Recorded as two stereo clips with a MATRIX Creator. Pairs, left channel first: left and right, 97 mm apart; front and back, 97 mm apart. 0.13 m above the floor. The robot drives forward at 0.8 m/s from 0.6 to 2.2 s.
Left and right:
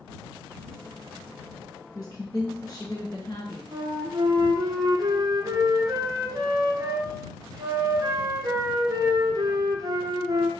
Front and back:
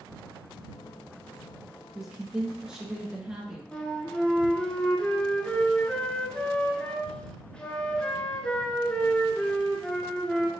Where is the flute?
75° right, 0.7 m.